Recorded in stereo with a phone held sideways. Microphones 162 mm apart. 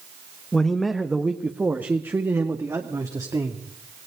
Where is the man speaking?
5° left (ahead or behind), 1.3 m; by 3.6 s 20° right (ahead or behind), 2.5 m.